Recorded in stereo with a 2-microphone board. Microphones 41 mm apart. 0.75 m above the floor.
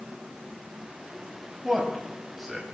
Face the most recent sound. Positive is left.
turn(degrees=0)  # may be behind; listen again after turning